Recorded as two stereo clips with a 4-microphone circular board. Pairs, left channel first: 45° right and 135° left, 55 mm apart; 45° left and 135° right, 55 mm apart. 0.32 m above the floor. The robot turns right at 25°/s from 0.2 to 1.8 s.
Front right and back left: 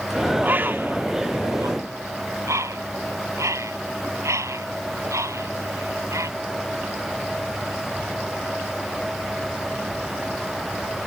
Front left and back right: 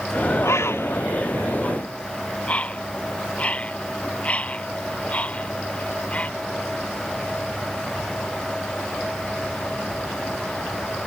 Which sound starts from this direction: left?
A bird, at 0.4 s.